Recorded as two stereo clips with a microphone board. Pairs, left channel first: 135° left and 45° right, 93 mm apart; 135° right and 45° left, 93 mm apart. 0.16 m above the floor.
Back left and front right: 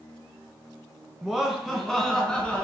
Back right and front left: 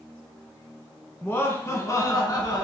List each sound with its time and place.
1.2 s laughter: 120° right, 1.2 m; by 2.6 s 150° right, 1.6 m